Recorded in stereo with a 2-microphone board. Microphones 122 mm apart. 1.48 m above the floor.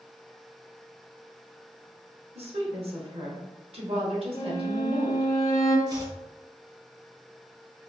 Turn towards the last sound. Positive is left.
turn(degrees=-30)  # may be behind; listen again after turning